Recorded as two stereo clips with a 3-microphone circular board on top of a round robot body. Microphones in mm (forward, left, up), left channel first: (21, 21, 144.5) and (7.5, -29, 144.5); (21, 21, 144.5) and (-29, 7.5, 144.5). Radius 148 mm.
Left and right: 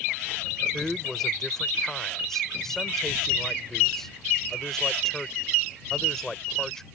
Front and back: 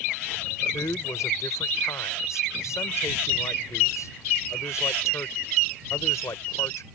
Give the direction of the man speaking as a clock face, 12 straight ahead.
12 o'clock.